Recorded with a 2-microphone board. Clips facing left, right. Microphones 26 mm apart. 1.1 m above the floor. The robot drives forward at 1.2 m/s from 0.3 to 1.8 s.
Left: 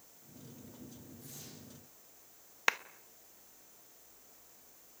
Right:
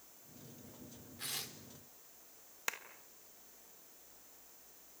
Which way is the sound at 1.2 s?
70° right (ahead or behind).